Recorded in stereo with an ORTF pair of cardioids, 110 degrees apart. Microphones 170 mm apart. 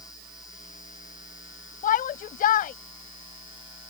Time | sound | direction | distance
1.8 | a shout | 60° left | ?